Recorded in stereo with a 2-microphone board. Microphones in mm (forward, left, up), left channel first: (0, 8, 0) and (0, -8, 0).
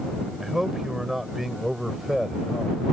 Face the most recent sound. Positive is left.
turn(degrees=-10)  # may be behind; listen again after turning